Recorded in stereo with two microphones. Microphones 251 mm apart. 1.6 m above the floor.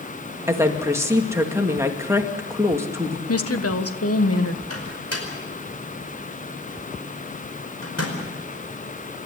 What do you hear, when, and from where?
0.5 s a woman speaking: 10° right (ahead or behind), 2 m
3.3 s a woman speaking: 65° left (ahead or behind), 1.4 m
4.7 s a microwave: 75° left (ahead or behind), 5 m